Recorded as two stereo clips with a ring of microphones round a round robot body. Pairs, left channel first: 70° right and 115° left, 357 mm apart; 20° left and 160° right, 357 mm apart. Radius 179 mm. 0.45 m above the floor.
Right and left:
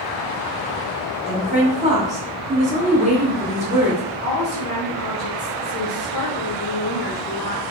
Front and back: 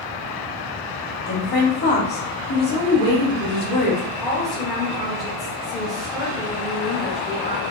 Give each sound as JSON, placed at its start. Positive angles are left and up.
{"t": 1.3, "sound": "a woman speaking", "azimuth_deg": 55, "distance_m": 1.3}
{"t": 4.2, "sound": "a woman speaking", "azimuth_deg": -65, "distance_m": 0.9}